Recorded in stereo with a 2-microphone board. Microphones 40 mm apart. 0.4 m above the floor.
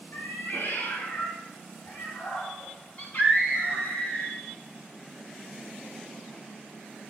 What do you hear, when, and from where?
0.1 s a cat meowing: 55° left (ahead or behind), 2 m; by 3.9 s 50° left (ahead or behind), 4.5 m
3.0 s a scream: 40° left (ahead or behind), 3.5 m